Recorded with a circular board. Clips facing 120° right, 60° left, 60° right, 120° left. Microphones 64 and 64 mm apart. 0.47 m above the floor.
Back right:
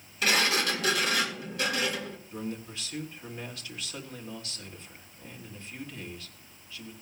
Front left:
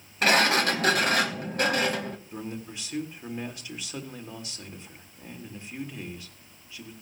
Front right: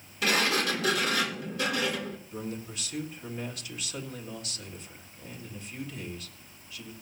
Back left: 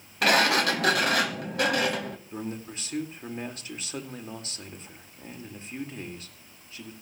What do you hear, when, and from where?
0.2 s a sliding door: 100° left, 1.2 m
2.3 s a man speaking: 115° left, 1.5 m